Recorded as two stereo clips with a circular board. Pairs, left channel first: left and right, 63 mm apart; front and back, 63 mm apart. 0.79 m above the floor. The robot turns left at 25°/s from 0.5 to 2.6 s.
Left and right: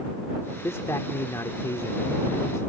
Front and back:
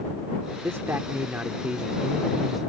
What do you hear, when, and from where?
0.6 s a man speaking: 135° left; by 2.7 s 90° left